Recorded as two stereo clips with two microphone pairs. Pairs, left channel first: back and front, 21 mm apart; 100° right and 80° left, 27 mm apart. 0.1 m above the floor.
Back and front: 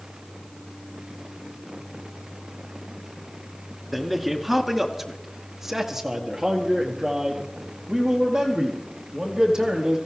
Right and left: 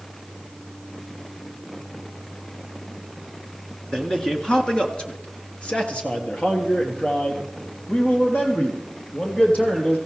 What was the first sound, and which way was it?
A man speaking, 115° right.